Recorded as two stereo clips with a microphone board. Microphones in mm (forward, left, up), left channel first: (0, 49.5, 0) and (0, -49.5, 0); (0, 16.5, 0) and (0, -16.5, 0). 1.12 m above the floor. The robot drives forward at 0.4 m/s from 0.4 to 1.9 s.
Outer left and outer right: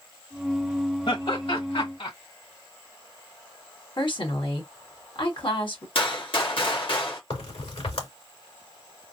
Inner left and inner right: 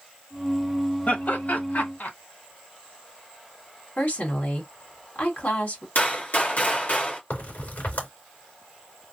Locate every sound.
1.1 s laughter: 65° left (ahead or behind), 1.7 m; by 2.1 s 75° left (ahead or behind), 1.6 m
4.0 s a woman speaking: 60° left (ahead or behind), 2 m
6.0 s a gunshot: 65° left (ahead or behind), 1.8 m
7.3 s a crack: 80° left, 2.5 m